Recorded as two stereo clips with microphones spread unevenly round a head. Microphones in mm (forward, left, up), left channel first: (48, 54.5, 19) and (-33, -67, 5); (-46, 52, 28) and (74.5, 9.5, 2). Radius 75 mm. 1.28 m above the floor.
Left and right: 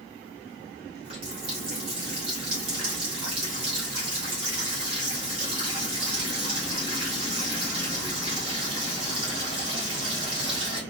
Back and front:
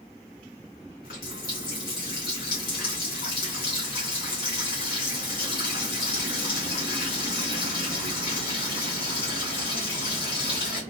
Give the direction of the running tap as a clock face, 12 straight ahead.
6 o'clock.